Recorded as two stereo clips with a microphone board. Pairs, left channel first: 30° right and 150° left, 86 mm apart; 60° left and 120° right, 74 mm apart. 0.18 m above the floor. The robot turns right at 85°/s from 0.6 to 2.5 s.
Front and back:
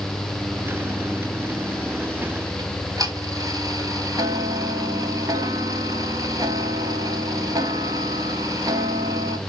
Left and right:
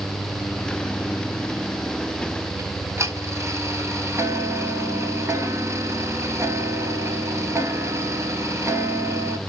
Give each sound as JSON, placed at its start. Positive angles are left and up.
{"t": 2.6, "sound": "ticking", "azimuth_deg": -170, "distance_m": 0.9}